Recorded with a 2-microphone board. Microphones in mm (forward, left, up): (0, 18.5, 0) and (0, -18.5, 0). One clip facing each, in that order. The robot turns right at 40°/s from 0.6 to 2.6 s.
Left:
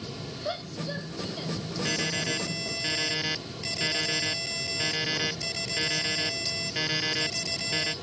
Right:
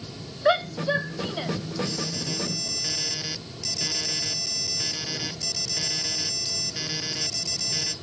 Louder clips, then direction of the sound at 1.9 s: Left 3 dB; 120° left.